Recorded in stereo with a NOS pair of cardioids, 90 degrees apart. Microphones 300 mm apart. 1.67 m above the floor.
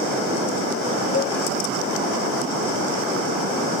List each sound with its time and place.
1.1 s a cowbell: 35° left